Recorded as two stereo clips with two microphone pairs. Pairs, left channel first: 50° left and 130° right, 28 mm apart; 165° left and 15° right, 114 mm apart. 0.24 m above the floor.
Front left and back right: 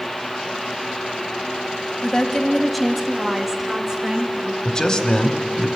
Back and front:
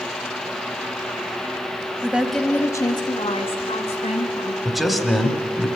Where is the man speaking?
70° left, 1.7 m.